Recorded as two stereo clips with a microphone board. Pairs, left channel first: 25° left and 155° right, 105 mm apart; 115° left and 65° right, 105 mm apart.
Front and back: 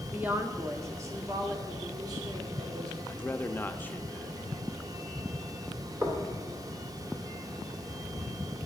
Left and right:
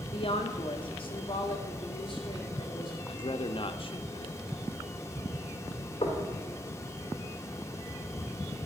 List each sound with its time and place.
0.1 s a woman speaking: 130° left, 1.1 m; by 3.0 s 155° left, 3 m
3.1 s a man speaking: 95° left, 0.7 m
6.0 s knocking: 145° left, 2.5 m